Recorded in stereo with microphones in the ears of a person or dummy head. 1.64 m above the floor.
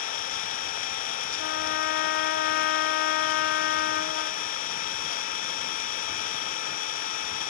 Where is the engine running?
45° left (ahead or behind), 0.7 m.